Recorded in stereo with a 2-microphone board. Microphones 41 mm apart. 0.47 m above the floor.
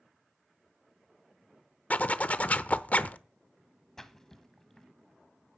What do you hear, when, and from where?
1.9 s a zipper: 40° left (ahead or behind), 0.7 m
4.0 s a splash: 10° left (ahead or behind), 1.3 m